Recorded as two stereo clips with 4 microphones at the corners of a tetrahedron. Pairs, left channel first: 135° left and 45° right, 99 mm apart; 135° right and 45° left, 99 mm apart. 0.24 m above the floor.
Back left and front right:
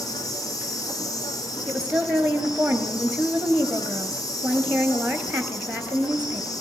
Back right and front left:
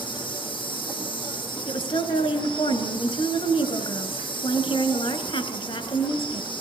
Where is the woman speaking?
125° right, 3 m.